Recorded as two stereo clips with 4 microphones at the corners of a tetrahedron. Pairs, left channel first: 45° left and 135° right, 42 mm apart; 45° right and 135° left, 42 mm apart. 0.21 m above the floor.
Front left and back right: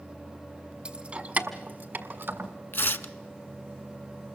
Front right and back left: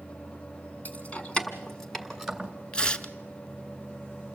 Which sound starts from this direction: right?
Keys jangling, at 0.8 s.